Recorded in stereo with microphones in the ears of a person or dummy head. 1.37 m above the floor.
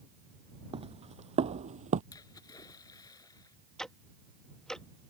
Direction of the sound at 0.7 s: 30° right (ahead or behind).